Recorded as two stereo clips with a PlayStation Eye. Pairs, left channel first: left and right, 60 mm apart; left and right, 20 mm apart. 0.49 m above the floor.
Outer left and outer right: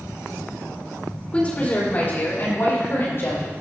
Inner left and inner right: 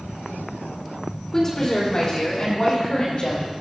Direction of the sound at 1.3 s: 25° left (ahead or behind).